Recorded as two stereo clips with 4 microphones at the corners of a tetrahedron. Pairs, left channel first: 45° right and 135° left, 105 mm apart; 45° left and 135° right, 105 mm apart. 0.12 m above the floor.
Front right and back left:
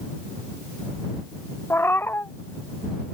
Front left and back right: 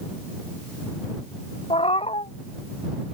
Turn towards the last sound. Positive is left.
turn(degrees=25)